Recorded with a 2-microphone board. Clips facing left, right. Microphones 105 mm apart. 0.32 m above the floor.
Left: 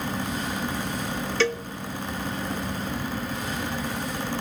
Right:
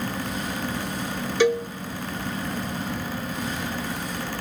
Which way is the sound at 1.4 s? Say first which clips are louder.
Right 6 dB; 15° right (ahead or behind).